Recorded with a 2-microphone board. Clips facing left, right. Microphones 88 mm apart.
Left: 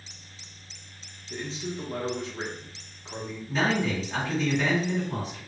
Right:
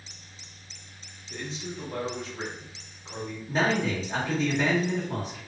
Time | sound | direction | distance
1.3 | a man speaking | 25° left (ahead or behind) | 0.7 m
3.5 | a man speaking | 45° right (ahead or behind) | 1.2 m